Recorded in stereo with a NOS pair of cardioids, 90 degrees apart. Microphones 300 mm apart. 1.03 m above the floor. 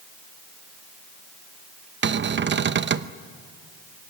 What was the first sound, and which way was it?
A cupboard door, 40° right.